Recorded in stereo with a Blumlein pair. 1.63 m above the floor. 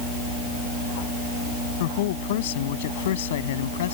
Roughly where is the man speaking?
Ahead left.